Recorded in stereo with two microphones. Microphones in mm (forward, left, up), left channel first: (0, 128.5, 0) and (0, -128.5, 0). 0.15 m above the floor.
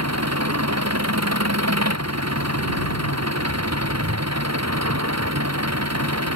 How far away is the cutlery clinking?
No cutlery clinking in this recording.